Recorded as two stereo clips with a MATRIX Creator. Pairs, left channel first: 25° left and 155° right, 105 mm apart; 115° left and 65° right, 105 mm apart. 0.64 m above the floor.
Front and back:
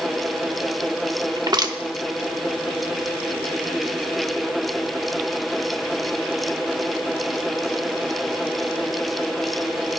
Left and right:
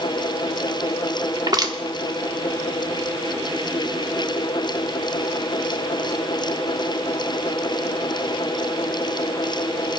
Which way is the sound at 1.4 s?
115° right.